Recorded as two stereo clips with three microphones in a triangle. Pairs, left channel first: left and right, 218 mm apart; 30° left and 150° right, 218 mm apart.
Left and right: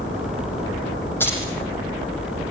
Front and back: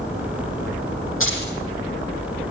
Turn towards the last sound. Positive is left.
turn(degrees=10)